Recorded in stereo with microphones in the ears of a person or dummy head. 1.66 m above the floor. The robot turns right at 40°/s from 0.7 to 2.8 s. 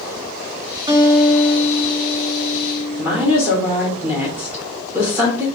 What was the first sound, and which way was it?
A guitar, 30° right.